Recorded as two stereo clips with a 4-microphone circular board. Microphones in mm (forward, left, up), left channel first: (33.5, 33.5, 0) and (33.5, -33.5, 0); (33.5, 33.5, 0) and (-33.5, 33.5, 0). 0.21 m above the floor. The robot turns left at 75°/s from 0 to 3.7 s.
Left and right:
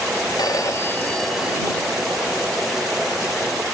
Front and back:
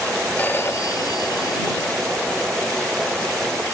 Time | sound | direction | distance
0.4 | a phone ringing | 70° left | ?